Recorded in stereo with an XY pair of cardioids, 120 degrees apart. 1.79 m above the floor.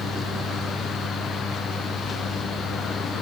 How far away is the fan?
About 6.5 m.